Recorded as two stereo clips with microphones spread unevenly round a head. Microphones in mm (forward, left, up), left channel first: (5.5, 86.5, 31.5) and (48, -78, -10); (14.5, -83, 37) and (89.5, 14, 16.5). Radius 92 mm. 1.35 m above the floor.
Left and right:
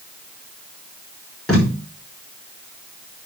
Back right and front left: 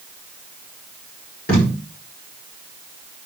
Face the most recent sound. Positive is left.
turn(degrees=-170)